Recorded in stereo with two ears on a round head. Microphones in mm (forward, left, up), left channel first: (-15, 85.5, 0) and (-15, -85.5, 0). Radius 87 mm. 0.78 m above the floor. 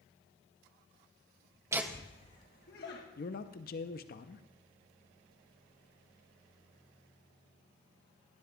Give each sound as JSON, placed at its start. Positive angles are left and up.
{"t": 1.7, "sound": "laughter", "side_deg": -15, "distance_m": 0.6}
{"t": 3.2, "sound": "a man speaking", "side_deg": 50, "distance_m": 0.7}